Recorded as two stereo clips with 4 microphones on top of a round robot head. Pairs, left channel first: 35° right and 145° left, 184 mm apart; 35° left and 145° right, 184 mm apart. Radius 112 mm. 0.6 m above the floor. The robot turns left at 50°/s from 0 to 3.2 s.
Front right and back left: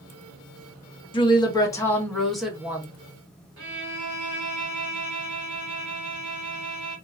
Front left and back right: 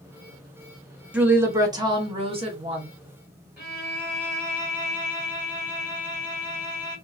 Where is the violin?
135° left, 1.6 m.